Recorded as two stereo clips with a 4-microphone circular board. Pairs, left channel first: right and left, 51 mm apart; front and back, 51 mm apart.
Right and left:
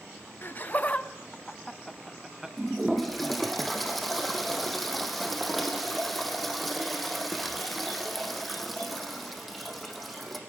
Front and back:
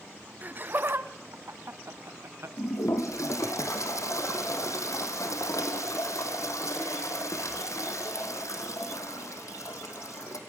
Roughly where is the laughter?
Behind right.